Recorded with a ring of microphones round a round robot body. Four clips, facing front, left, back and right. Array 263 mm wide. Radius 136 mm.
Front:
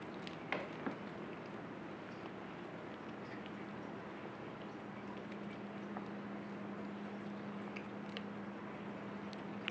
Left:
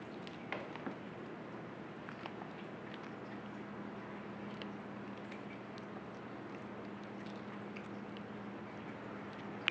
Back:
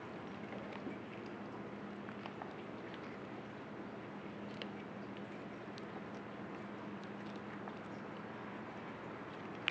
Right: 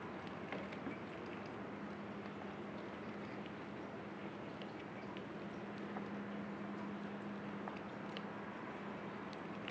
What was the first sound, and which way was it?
Only background noise.